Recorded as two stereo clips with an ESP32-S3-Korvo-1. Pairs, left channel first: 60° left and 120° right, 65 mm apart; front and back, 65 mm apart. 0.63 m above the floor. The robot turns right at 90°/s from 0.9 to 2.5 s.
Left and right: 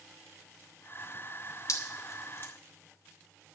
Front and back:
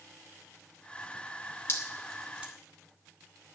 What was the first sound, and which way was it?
Dripping, 40° left.